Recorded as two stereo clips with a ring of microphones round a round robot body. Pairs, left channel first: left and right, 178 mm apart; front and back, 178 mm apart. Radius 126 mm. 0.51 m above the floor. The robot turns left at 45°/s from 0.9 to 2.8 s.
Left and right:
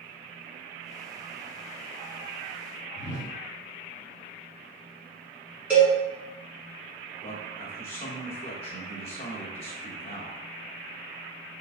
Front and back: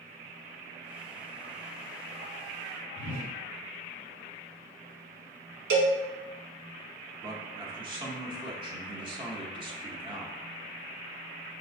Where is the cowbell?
175° right, 1.0 m.